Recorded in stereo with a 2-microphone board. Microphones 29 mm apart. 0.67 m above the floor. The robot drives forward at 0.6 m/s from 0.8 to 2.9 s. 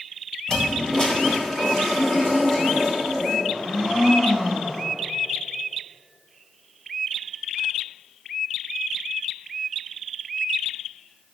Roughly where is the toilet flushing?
Left.